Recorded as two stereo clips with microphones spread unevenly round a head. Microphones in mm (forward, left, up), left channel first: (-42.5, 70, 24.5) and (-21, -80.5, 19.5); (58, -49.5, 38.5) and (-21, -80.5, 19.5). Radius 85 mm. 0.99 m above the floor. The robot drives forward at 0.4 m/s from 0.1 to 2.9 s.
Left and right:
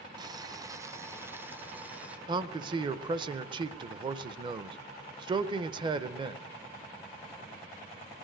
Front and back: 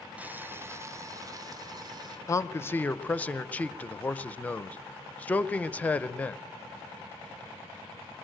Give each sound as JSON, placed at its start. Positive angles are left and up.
{"t": 0.2, "sound": "boiling", "azimuth_deg": -120, "distance_m": 0.7}
{"t": 2.3, "sound": "a man speaking", "azimuth_deg": -35, "distance_m": 0.7}